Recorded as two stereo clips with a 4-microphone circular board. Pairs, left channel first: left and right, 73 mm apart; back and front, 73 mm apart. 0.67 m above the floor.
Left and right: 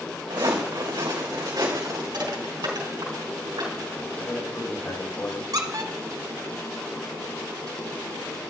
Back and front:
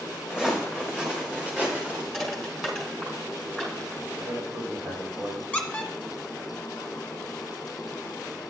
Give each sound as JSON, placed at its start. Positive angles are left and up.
{"t": 0.3, "sound": "footsteps", "azimuth_deg": -80, "distance_m": 3.0}
{"t": 2.1, "sound": "crushing", "azimuth_deg": -85, "distance_m": 3.5}
{"t": 4.2, "sound": "a man speaking", "azimuth_deg": 35, "distance_m": 3.5}
{"t": 5.5, "sound": "a squeak", "azimuth_deg": -105, "distance_m": 1.4}